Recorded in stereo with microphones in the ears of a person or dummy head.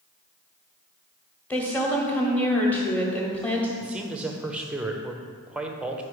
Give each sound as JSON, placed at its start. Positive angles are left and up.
{"t": 1.5, "sound": "a woman speaking", "side_deg": 10, "distance_m": 1.1}
{"t": 3.8, "sound": "a man speaking", "side_deg": -5, "distance_m": 0.5}